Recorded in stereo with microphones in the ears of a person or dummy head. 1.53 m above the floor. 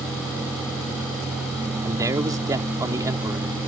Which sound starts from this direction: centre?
A man speaking, at 1.8 s.